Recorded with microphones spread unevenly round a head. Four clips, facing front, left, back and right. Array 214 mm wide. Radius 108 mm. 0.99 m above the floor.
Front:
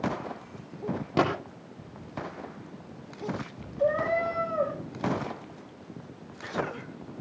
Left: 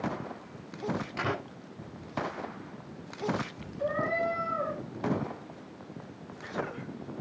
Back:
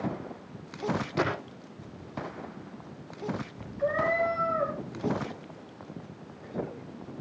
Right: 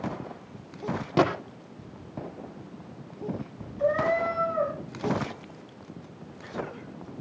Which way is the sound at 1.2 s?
50° right.